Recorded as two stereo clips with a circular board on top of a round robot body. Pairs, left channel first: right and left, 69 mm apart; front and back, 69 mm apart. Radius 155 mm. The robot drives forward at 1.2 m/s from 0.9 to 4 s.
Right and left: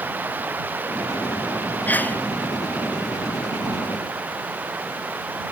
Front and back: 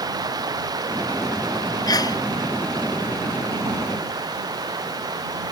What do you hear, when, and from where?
0.0 s running water: 155° left
1.9 s a sneeze: 25° right